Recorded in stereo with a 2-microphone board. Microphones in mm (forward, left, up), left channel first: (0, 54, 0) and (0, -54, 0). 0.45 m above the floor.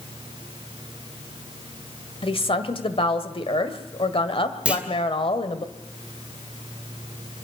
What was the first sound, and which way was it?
A woman speaking, 55° left (ahead or behind).